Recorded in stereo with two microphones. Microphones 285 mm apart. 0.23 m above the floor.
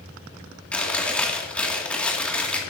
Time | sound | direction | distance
0.7 | chewing | 5° left (ahead or behind) | 2.5 m